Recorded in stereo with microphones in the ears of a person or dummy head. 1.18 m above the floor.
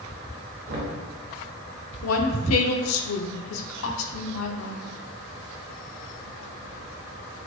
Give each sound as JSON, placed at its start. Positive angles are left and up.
{"t": 0.7, "sound": "knocking", "side_deg": -55, "distance_m": 0.9}
{"t": 2.0, "sound": "a woman speaking", "side_deg": 80, "distance_m": 0.5}